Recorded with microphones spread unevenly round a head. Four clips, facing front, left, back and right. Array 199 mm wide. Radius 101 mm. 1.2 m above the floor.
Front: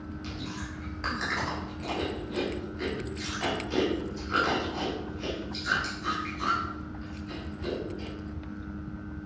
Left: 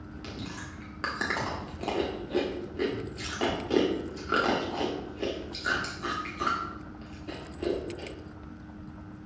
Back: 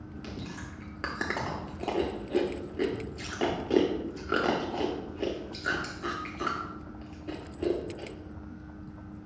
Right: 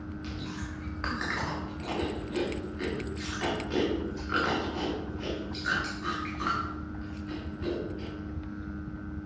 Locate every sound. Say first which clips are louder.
0.2 s chewing: left 1 dB, front 1 dB; 145° left, 1.1 m